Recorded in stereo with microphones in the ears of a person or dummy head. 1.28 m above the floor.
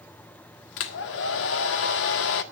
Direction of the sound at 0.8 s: 60° left (ahead or behind).